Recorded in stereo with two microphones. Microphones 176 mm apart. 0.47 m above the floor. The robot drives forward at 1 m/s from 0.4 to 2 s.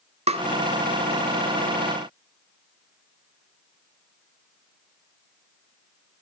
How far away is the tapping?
About 1.1 m.